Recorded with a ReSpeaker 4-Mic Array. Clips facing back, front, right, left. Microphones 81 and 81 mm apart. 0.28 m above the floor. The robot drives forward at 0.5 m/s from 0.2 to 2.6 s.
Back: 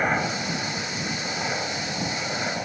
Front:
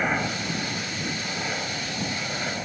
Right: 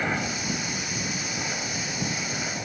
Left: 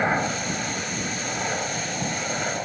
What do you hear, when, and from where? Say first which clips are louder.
0.0 s a helicopter: back 2 dB, left 5 dB; 110° left; by 2.6 s 115° left